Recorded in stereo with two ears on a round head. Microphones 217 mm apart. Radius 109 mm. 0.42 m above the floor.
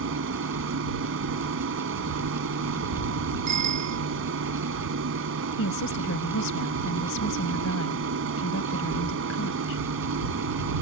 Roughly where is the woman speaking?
Left.